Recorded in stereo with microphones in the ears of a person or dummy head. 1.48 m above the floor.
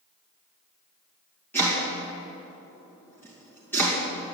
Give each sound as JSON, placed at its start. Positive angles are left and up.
{"t": 1.5, "sound": "chopping", "side_deg": 15, "distance_m": 2.0}